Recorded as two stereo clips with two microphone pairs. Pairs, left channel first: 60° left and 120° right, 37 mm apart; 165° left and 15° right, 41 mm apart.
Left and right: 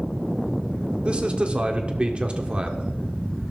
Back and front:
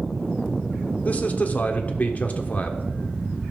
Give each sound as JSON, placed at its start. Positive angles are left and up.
{"t": 1.1, "sound": "a man speaking", "azimuth_deg": -165, "distance_m": 1.4}